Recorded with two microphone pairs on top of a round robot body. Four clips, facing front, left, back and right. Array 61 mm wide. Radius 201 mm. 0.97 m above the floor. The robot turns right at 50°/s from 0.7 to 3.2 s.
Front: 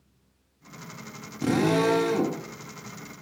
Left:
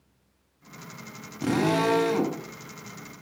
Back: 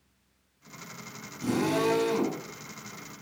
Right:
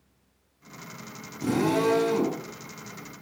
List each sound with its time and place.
1.4 s a drill: 65° left, 1.1 m; by 2.4 s 110° left, 1.1 m